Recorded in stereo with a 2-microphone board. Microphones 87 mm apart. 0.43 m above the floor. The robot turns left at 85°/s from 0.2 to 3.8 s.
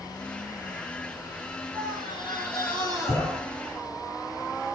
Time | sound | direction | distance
1.7 | a scream | 135° left | 5.5 m